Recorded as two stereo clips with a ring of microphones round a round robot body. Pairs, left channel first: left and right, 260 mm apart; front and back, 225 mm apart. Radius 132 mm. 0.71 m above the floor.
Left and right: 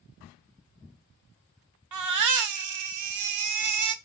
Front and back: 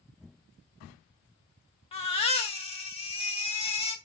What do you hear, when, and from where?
1.9 s a baby crying: 70° right, 1.3 m